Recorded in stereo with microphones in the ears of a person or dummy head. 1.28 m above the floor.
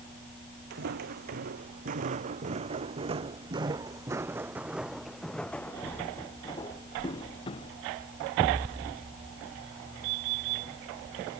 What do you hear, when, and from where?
0.7 s footsteps: 50° right (ahead or behind); by 7.7 s 30° left (ahead or behind)